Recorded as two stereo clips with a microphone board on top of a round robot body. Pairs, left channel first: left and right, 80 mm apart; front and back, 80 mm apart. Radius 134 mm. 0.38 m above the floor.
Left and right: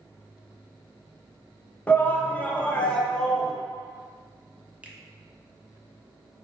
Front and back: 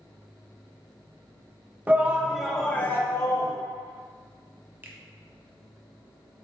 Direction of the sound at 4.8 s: 145° right.